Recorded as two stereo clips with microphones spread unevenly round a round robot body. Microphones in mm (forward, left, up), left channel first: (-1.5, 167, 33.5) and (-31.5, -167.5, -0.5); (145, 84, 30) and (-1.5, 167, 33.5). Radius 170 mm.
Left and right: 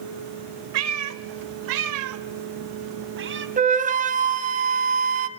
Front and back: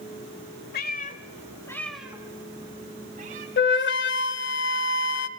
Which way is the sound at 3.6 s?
25° right.